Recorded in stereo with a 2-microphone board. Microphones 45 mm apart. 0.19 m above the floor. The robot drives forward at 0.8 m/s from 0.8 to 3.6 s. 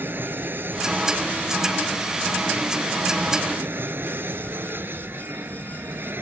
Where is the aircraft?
50° right (ahead or behind); by 6.2 s 55° right (ahead or behind).